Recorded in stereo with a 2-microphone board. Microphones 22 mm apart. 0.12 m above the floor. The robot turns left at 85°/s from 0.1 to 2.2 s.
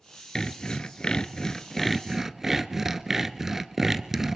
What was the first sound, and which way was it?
Sawing, 140° left.